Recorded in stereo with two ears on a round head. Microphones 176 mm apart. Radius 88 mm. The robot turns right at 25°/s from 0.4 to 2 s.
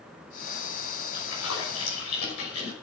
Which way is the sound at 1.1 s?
60° left (ahead or behind).